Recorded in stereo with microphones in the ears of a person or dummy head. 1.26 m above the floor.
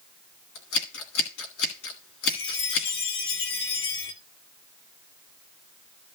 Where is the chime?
60° left (ahead or behind), 1.8 m.